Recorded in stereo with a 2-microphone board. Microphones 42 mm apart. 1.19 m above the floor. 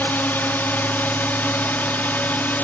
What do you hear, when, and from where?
0.0 s a drone: 55° left (ahead or behind); by 2.6 s 50° left (ahead or behind)